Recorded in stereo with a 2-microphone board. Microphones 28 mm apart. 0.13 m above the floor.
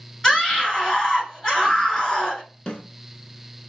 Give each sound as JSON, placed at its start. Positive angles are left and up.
{"t": 0.2, "sound": "a scream", "side_deg": 25, "distance_m": 1.4}
{"t": 2.7, "sound": "a snare drum", "side_deg": 30, "distance_m": 0.8}